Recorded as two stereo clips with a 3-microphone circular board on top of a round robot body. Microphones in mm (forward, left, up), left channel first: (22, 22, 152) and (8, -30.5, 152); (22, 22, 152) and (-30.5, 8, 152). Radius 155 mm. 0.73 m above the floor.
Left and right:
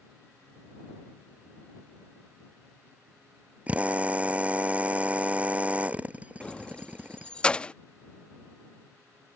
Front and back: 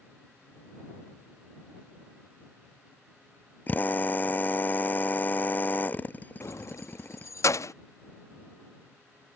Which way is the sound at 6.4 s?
5° left.